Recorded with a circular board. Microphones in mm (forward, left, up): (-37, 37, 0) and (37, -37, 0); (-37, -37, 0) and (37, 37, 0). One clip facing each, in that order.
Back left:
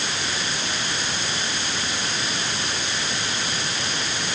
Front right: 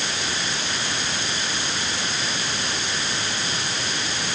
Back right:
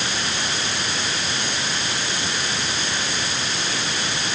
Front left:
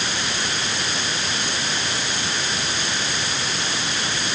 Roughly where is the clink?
No clink in this recording.